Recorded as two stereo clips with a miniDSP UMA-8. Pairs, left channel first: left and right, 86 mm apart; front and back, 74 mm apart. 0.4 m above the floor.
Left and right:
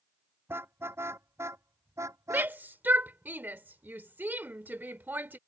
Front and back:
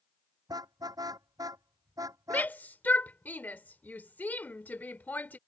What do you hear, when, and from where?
0.5 s a car horn: 150° right; by 2.5 s 140° right
2.3 s a shout: 45° right